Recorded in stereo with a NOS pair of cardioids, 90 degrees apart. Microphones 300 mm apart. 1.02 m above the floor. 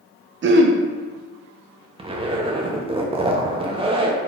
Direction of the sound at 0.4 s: 40° right.